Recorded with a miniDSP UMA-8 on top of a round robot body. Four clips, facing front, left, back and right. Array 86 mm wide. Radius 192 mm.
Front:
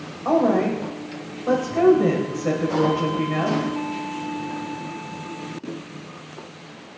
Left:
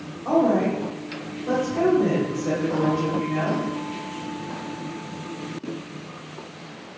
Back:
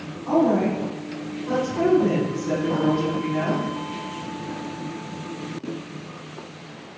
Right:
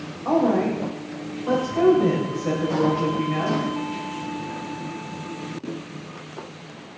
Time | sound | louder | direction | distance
0.2 | a woman speaking | even, front 1 dB | 10° right | 4.5 m